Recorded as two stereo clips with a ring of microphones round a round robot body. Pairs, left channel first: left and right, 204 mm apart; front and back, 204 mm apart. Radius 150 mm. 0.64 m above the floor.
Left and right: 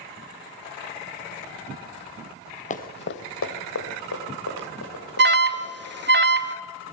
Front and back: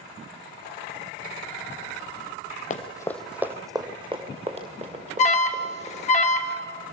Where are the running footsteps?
45° left, 1.0 m; by 6.1 s 130° left, 5 m.